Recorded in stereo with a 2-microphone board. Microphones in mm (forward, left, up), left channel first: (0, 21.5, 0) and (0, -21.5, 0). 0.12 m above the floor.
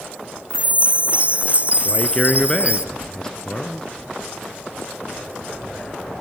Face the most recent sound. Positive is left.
turn(degrees=15)  # may be behind; listen again after turning